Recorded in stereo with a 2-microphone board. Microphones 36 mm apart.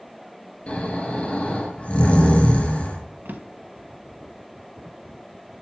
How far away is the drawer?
About 1.2 m.